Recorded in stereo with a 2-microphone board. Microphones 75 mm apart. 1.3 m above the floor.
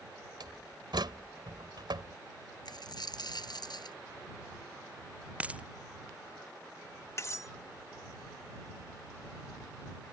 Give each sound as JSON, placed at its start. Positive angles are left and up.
{"t": 0.4, "sound": "a door slam", "side_deg": -85}
{"t": 2.6, "sound": "a dropped coin", "side_deg": 70}
{"t": 5.4, "sound": "a dropped coin", "side_deg": -20}
{"t": 7.2, "sound": "cutlery clinking", "side_deg": 40}